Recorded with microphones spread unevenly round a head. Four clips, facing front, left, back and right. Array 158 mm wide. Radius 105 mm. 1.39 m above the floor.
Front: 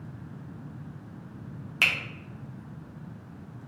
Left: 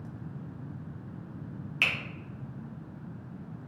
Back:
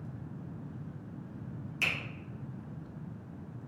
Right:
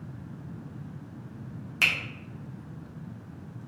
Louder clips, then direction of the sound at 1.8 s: Right 3 dB, front 7 dB; 20° right.